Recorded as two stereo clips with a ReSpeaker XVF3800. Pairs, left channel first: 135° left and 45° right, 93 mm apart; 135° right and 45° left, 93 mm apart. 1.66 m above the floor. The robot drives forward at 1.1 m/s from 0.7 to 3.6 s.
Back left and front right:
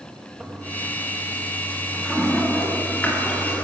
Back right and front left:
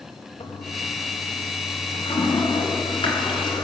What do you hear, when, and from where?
0.4 s a toilet flushing: 125° right, 2.5 m; by 3.6 s 155° right, 5 m